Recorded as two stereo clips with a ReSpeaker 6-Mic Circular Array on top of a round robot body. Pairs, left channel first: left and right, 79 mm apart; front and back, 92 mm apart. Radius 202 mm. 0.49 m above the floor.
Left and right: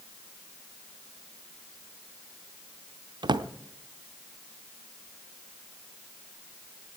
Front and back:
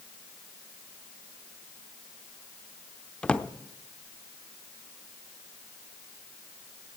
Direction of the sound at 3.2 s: 80° right.